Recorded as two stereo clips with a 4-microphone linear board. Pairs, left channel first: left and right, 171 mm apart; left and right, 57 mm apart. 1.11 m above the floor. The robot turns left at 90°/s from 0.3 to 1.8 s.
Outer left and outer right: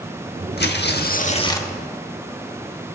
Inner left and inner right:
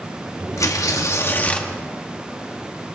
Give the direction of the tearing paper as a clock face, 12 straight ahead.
8 o'clock.